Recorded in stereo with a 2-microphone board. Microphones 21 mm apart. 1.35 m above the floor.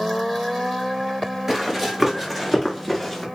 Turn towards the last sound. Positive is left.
turn(degrees=0)  # may be behind; listen again after turning